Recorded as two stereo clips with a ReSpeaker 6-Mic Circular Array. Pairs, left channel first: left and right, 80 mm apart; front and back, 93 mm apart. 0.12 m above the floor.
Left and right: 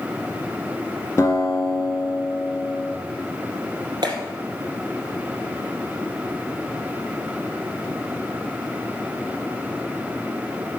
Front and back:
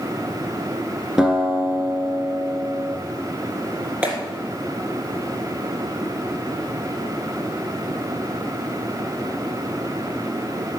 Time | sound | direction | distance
1.2 | a guitar | 105° left | 1.6 m
4.0 | a clap | 110° right | 2.5 m